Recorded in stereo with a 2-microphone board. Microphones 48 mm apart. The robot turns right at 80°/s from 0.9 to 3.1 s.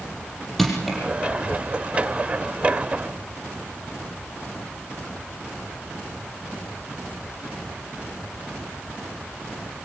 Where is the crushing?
Centre (ahead or behind), 6.5 m; by 1.0 s 10° left (ahead or behind), 6.5 m.